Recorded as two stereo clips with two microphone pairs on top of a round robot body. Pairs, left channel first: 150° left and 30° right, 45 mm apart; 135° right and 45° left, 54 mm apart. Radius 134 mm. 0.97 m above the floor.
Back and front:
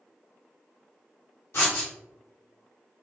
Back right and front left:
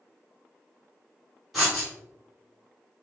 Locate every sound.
1.5 s writing: 115° left, 0.8 m